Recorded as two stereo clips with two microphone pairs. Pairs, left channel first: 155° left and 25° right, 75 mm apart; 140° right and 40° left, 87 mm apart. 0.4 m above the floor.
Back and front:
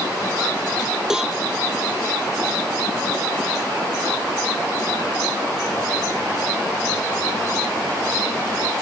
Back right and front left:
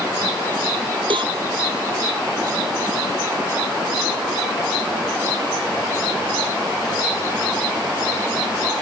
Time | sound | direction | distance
1.1 | a cowbell | 60° left | ?